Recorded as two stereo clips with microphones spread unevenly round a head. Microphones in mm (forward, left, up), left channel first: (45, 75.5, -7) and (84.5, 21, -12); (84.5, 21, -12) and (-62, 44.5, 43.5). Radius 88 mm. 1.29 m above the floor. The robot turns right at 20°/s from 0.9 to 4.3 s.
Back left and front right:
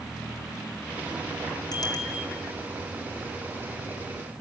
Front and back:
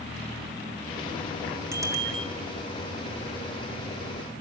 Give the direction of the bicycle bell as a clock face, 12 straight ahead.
9 o'clock.